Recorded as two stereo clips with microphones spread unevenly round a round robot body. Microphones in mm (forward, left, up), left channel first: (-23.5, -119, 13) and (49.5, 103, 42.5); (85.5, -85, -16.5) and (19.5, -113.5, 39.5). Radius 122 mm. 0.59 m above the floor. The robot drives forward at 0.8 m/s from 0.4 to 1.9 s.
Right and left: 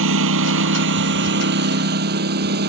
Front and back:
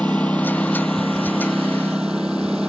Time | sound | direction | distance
0.0 | a lawn mower | 110° left | ?